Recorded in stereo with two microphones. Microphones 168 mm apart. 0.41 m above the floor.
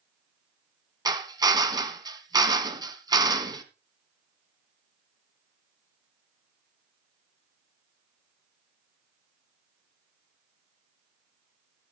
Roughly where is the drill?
Right.